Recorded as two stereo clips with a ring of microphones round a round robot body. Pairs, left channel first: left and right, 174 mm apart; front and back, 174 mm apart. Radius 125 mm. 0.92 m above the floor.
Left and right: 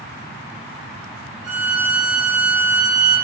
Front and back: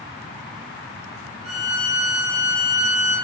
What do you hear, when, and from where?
1.4 s a violin: 55° right, 1.1 m